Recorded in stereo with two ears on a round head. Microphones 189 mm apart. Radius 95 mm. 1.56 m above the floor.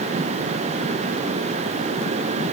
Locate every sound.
Only background noise.